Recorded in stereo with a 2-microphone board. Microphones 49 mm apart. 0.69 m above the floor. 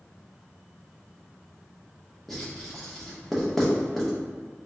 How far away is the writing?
About 0.7 m.